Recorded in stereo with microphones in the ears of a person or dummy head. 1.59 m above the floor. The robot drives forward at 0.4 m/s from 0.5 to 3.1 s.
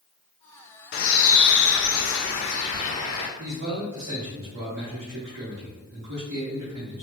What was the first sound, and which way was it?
A bird, 50° left (ahead or behind).